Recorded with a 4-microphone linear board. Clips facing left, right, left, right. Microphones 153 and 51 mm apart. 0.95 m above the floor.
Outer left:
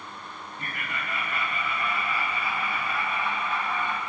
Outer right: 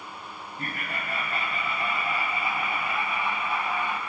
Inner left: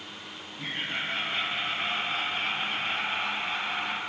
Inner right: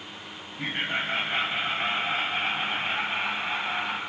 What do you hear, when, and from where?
0.6 s laughter: 40° right (ahead or behind), 5 m; by 4.0 s 10° right (ahead or behind), 6 m